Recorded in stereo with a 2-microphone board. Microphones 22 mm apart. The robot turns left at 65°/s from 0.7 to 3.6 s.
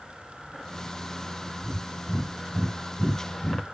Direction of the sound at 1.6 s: 50° right (ahead or behind).